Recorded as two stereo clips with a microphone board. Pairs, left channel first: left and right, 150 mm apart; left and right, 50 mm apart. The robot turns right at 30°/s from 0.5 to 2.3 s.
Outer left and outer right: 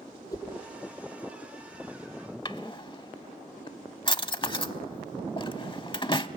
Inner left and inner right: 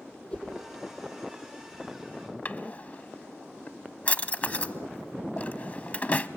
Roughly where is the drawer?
Left.